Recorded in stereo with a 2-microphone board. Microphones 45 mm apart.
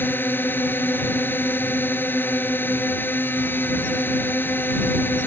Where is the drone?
50° left (ahead or behind).